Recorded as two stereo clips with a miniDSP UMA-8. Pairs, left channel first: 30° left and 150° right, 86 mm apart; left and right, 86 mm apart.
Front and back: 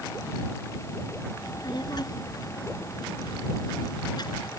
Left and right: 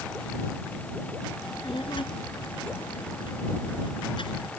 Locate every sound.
1.4 s a child speaking: 70° left